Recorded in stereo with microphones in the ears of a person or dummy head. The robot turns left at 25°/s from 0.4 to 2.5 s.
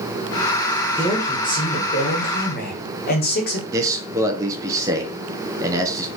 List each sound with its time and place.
1.0 s a man speaking: 170° left, 1.9 m; by 3.6 s 130° left, 1.9 m
3.7 s a man speaking: 15° right (ahead or behind), 1.2 m